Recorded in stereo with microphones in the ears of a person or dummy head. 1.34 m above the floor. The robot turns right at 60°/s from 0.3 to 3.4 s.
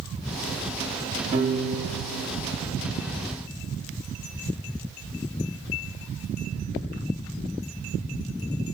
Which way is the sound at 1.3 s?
25° right (ahead or behind).